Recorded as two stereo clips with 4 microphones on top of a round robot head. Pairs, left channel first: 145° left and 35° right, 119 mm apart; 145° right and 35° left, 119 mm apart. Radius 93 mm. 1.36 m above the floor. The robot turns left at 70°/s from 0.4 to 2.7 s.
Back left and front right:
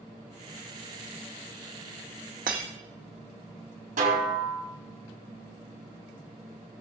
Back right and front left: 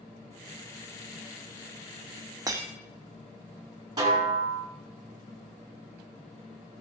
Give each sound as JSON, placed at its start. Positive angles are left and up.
{"t": 2.5, "sound": "breaking glass", "azimuth_deg": -30, "distance_m": 1.5}
{"t": 4.0, "sound": "a snare drum", "azimuth_deg": -25, "distance_m": 4.0}